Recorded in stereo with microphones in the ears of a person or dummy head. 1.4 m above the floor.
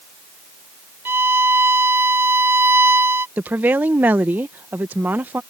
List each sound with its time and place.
1.1 s a violin: 10° right (ahead or behind)
3.4 s a woman speaking: 5° right (ahead or behind)